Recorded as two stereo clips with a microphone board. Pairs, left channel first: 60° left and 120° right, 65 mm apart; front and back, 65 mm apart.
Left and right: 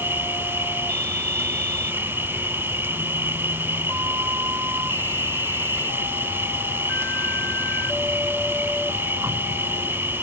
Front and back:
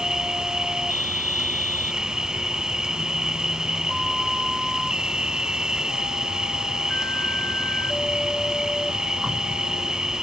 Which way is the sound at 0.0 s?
105° right.